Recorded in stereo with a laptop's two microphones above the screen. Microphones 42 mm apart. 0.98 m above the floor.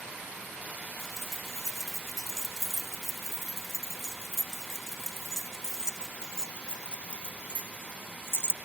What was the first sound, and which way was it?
Keys jangling, centre (ahead or behind).